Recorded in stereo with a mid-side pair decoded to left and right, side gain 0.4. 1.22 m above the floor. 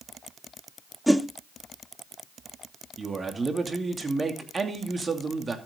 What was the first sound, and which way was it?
A whoosh, 5° right.